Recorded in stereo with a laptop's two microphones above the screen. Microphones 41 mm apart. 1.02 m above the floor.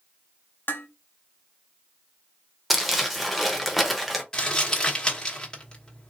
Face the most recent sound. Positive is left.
turn(degrees=25)  # may be behind; listen again after turning